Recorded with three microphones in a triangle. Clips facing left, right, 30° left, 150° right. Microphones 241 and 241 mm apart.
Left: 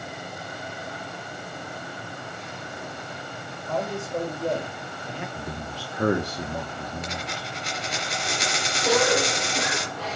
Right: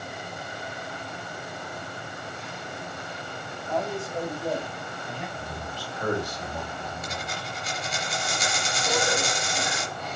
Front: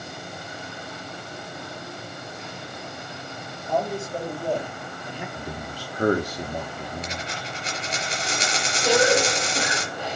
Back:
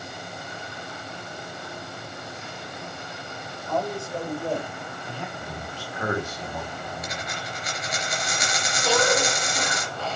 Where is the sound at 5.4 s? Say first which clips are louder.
Left 2 dB, front 2 dB; 75° left, 1.2 m.